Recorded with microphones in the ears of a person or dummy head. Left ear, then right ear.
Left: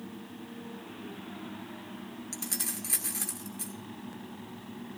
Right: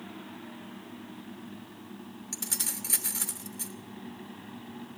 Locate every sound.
2.3 s keys jangling: 5° right (ahead or behind), 1.0 m